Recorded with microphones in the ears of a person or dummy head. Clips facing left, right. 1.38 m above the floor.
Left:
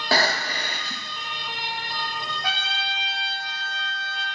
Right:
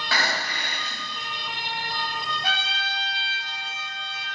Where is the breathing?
30° left (ahead or behind), 1.7 m.